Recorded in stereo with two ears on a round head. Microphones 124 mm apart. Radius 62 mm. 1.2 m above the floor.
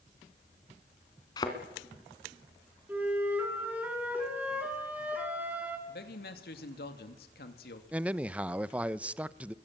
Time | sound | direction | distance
1.4 | a thud | 30° left (ahead or behind) | 2.5 m
2.9 | a flute | 10° right (ahead or behind) | 5 m
5.9 | a man speaking | 80° left | 2.5 m
7.9 | a man speaking | 10° right (ahead or behind) | 0.7 m